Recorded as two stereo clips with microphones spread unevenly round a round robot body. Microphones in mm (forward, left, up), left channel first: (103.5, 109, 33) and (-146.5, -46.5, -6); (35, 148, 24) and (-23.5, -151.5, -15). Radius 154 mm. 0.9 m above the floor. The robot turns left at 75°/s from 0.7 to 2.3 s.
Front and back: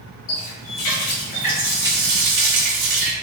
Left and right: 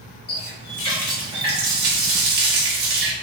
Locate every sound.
0.3 s a running tap: 15° left, 1.0 m; by 3.1 s 105° right, 1.0 m